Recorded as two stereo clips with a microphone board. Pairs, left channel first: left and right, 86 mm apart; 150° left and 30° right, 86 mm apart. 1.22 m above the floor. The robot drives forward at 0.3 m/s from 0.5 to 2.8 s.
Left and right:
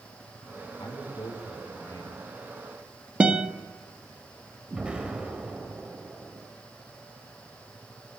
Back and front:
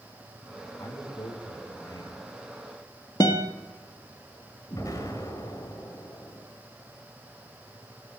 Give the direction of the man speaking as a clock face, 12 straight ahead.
8 o'clock.